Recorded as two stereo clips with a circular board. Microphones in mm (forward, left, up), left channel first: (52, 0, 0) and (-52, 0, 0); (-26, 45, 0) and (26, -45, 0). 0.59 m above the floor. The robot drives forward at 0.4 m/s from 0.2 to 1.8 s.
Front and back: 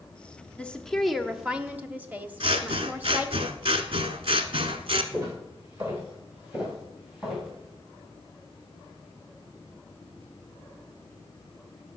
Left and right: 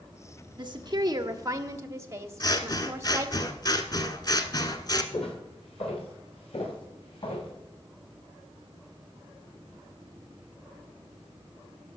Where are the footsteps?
120° left, 3.5 m; by 7.5 s 95° left, 3 m.